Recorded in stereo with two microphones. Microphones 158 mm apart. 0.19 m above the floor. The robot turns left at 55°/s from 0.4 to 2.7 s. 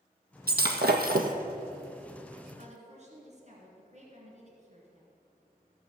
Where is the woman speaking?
50° right (ahead or behind), 2.5 m.